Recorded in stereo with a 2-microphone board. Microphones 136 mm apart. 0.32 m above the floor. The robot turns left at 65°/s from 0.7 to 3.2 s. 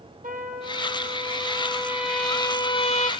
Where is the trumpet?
85° right, 2.5 m; by 3.1 s 120° left, 2.5 m.